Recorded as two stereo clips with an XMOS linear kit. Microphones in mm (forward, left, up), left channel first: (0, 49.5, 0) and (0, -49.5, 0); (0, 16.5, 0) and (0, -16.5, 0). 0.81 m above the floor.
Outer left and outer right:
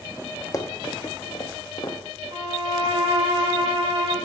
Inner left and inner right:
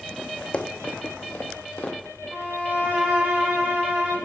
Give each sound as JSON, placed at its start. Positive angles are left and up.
{"t": 0.5, "sound": "running footsteps", "side_deg": 35, "distance_m": 0.9}
{"t": 2.3, "sound": "a violin", "side_deg": -75, "distance_m": 3.5}